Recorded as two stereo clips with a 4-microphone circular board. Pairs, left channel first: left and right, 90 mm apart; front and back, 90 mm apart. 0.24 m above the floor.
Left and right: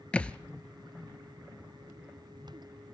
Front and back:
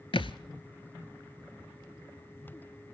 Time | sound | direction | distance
0.1 | a thud | 15° left | 0.6 m